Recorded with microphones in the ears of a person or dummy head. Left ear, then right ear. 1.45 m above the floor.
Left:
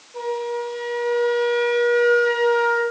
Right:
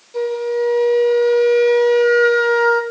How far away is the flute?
About 0.7 m.